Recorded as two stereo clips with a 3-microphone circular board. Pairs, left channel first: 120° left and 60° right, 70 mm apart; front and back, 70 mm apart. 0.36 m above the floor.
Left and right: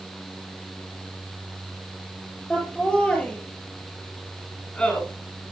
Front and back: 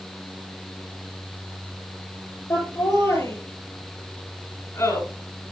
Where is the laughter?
45° left, 8 m; by 5.0 s 50° left, 7 m.